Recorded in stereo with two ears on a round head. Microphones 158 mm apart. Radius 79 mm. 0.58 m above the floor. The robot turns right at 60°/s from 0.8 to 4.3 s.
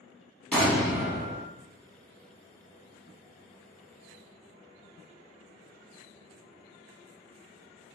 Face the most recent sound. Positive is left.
turn(degrees=25)